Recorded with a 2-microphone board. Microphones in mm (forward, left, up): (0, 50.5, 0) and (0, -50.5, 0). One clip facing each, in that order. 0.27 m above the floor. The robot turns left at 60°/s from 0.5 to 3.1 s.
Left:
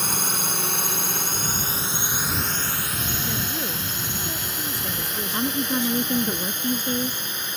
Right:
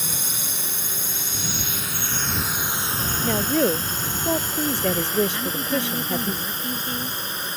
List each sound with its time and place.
0.0 s a drone: 55° left (ahead or behind); by 7.6 s 35° right (ahead or behind)
3.2 s a woman speaking: 65° right (ahead or behind)
5.3 s a woman speaking: 35° left (ahead or behind)